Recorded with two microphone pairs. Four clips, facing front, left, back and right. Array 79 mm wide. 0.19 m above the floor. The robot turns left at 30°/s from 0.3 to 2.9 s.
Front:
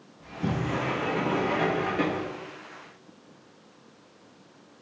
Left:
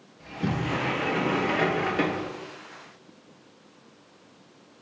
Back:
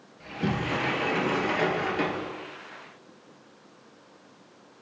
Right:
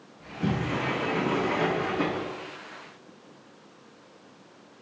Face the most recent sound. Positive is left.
turn(degrees=80)